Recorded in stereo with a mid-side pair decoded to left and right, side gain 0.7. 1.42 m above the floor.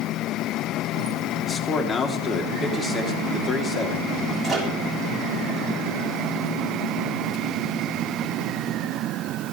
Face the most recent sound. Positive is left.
turn(degrees=-20)